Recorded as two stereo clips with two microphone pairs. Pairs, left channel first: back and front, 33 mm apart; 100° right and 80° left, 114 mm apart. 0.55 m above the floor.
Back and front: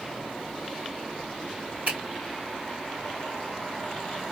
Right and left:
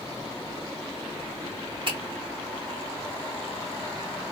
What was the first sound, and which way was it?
A finger snap, 40° left.